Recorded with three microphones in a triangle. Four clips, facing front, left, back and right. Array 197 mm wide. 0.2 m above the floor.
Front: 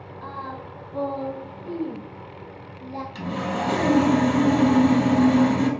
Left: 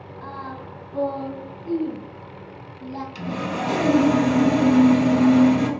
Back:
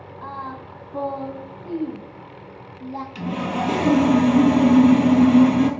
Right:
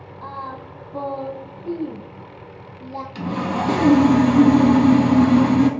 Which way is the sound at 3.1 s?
115° right.